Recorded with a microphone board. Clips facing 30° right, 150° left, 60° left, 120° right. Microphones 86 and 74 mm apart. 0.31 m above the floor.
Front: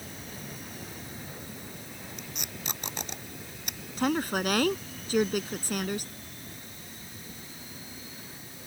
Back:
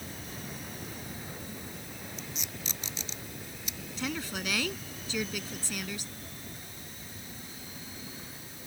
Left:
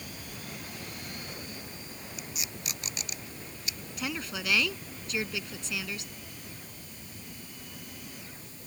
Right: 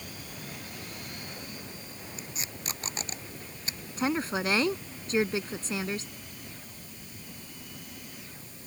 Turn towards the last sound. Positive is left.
turn(degrees=-70)